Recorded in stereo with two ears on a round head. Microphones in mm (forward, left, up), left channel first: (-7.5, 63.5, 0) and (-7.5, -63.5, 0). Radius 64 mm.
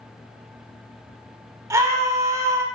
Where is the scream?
25° right (ahead or behind), 2.5 m.